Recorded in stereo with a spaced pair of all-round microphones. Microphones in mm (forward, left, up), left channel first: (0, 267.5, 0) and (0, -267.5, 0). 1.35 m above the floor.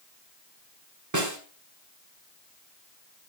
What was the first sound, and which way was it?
A snare drum, 35° right (ahead or behind).